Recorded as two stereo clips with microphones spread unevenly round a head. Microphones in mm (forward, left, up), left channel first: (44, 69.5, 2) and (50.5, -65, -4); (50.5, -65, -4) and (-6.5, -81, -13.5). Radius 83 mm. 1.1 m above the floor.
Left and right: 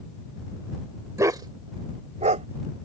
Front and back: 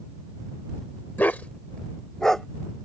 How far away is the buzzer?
No buzzer in this recording.